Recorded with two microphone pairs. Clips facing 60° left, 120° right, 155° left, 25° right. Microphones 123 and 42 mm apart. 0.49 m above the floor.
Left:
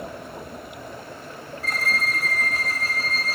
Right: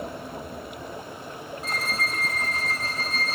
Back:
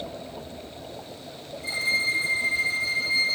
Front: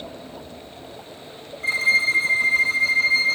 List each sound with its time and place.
1.6 s a violin: 55° right, 1.1 m